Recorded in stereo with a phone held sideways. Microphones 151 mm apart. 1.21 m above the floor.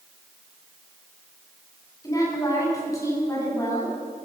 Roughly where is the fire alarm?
I don't hear a fire alarm.